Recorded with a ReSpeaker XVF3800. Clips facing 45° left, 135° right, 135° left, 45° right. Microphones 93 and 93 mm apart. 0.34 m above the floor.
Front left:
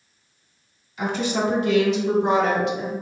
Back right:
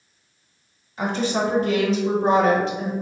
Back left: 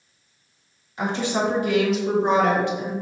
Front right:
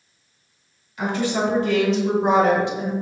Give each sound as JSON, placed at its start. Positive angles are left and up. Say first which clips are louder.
{"t": 1.0, "sound": "a woman speaking", "louder": "back right 1 dB, front right 1 dB", "azimuth_deg": -175, "distance_m": 1.4}